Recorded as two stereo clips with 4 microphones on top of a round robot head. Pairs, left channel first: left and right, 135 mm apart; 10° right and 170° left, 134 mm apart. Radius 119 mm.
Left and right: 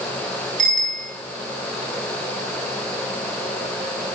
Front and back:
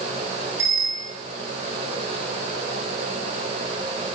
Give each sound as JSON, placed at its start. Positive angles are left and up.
{"t": 0.6, "sound": "a bicycle bell", "azimuth_deg": -115, "distance_m": 7.0}